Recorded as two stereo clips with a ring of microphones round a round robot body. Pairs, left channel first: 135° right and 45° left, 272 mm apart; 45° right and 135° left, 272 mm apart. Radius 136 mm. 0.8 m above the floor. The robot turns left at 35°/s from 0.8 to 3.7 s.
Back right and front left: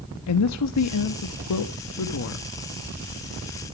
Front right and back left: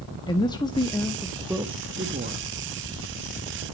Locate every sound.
0.3 s a woman speaking: 120° right, 1.2 m; by 2.5 s 175° right, 1.2 m